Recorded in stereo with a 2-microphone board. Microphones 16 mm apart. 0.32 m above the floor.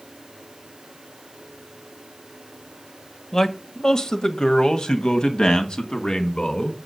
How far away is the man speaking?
About 1.0 m.